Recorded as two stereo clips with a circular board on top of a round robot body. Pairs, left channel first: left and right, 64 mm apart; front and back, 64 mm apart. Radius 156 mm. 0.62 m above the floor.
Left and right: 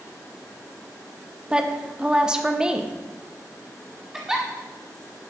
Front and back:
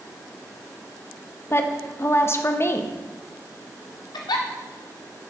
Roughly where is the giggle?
Ahead.